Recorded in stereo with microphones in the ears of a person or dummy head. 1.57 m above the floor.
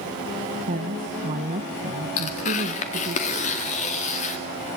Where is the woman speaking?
40° right (ahead or behind), 1.2 m.